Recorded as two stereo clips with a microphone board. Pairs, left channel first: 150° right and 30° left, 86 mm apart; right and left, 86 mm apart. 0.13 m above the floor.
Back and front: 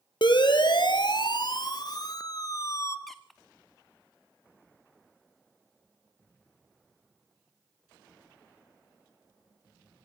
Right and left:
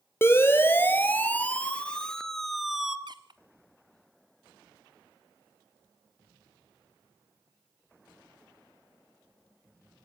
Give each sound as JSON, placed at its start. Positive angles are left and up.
{"t": 0.2, "sound": "a siren", "azimuth_deg": -150, "distance_m": 2.5}
{"t": 3.1, "sound": "a squeak", "azimuth_deg": 120, "distance_m": 1.5}